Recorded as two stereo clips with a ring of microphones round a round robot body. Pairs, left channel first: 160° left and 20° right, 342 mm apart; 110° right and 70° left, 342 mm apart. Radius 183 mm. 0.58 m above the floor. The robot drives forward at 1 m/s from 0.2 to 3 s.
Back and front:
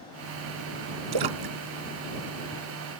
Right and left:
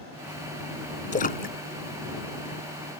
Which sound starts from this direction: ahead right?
A splash, at 1.1 s.